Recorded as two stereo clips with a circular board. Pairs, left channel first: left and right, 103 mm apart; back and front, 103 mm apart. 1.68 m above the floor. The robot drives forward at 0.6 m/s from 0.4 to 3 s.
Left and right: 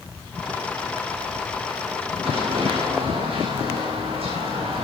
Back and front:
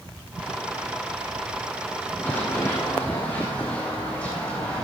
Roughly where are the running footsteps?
Right.